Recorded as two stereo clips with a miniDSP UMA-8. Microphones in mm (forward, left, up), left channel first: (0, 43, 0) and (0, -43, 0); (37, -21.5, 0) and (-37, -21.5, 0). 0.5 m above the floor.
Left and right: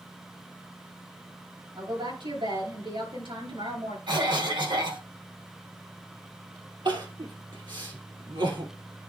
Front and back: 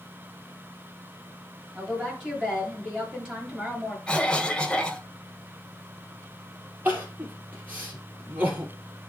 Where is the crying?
110° right, 2 m.